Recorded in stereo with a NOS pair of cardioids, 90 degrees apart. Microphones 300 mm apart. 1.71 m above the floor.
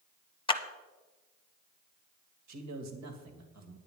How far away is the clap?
About 1.1 m.